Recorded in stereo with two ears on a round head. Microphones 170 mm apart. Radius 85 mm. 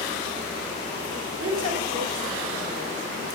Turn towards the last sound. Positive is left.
turn(degrees=-70)  # may be behind; listen again after turning